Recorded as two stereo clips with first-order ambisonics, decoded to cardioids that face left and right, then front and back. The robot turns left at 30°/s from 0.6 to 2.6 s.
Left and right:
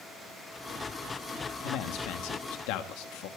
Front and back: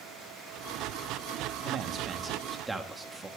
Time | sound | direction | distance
1.6 | a man speaking | 130° left | 1.4 m